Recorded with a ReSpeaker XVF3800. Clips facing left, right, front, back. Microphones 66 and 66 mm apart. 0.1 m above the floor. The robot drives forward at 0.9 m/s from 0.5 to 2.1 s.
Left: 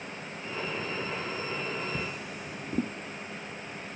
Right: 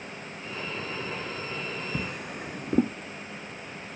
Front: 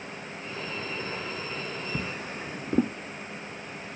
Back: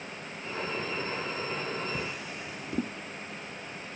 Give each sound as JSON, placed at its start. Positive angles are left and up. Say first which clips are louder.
{"t": 1.9, "sound": "a drawer", "louder": "right 2 dB, front 2 dB", "azimuth_deg": -55}